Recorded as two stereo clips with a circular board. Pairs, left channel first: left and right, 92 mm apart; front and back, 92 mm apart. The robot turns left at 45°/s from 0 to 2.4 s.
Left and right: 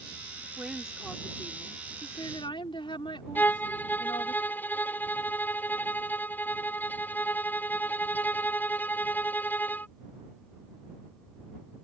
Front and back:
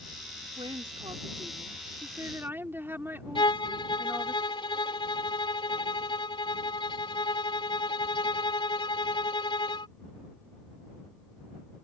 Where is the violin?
20° left.